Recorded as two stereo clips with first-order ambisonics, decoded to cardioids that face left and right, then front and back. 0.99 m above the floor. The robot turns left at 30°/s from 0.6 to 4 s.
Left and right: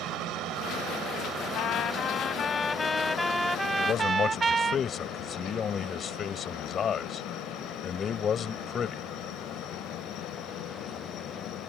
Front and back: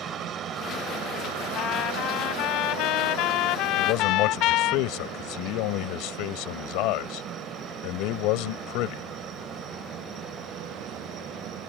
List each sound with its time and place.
0.0 s a helicopter: 125° right; by 11.7 s 130° left
1.6 s a trumpet: 50° left; by 4.8 s 20° right
3.8 s a man speaking: 30° left; by 9.0 s 25° left